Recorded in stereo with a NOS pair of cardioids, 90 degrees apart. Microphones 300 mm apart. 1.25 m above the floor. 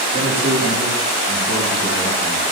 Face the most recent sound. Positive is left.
turn(degrees=-20)